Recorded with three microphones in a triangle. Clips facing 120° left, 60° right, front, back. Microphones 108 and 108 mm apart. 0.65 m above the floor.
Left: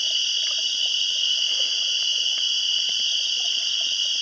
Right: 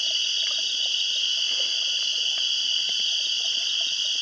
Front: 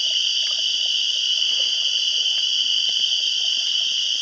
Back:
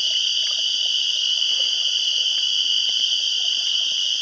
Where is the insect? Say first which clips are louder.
Left 1 dB, even; 125° right, 1.3 m.